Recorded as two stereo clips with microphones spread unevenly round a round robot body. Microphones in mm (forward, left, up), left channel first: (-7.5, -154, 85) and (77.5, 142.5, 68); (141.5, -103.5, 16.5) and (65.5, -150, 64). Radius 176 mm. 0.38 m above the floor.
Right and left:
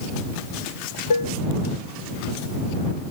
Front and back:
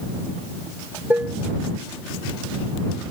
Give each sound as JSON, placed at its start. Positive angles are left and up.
{"t": 1.1, "sound": "dishes clattering", "azimuth_deg": -80}